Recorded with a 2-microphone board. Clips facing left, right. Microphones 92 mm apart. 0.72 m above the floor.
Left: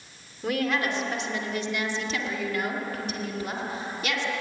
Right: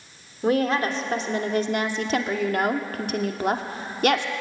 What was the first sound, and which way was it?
A woman speaking, 30° right (ahead or behind).